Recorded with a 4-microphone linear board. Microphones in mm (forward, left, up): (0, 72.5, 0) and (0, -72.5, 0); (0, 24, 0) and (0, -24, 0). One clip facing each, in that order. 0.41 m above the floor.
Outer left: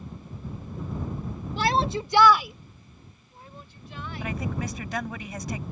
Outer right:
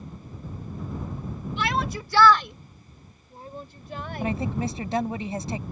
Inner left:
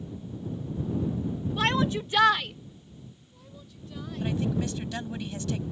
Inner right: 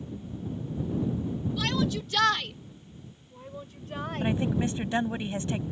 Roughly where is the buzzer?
I don't hear a buzzer.